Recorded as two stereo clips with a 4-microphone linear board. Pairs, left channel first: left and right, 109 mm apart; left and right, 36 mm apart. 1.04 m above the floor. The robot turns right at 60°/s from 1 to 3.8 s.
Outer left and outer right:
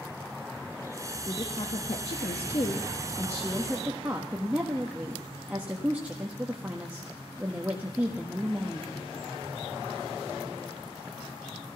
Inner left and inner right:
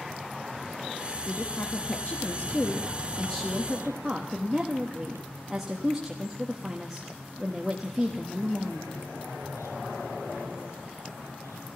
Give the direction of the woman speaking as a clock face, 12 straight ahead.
11 o'clock.